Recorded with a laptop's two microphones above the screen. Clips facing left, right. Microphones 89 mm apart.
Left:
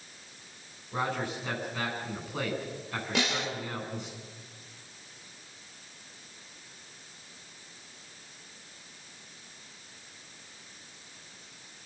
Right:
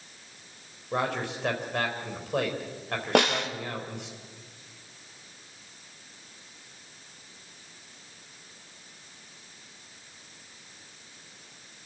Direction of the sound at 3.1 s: 55° right (ahead or behind).